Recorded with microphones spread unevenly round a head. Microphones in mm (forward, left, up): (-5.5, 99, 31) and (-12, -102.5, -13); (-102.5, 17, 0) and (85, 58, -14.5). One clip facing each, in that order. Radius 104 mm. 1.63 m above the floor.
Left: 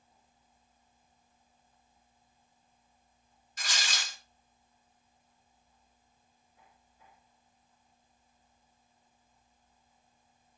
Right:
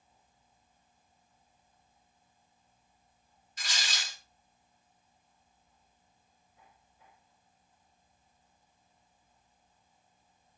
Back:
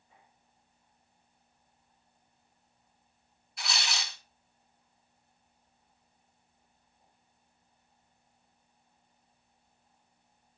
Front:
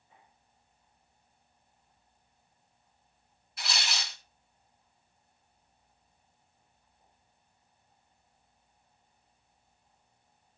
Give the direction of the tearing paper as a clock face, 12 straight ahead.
9 o'clock.